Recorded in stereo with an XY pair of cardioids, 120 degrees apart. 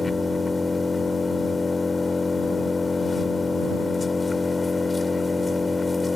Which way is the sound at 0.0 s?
20° left.